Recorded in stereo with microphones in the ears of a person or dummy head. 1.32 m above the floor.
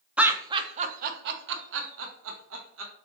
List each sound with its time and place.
0.2 s laughter: 5° right (ahead or behind), 0.6 m; by 2.9 s 80° right, 1.3 m